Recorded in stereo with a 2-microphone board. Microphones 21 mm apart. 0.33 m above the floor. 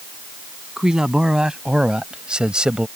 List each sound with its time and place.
0.8 s a man speaking: 35° right (ahead or behind); by 2.9 s 45° right (ahead or behind)